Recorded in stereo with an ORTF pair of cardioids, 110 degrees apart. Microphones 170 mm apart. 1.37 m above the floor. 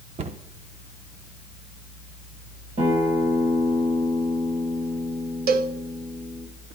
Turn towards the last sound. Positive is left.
turn(degrees=-65)